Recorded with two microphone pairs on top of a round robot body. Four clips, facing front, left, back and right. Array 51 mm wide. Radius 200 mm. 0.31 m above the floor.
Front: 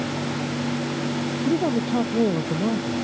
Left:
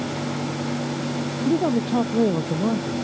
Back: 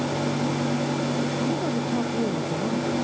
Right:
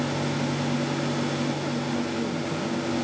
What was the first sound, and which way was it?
A man speaking, 70° left.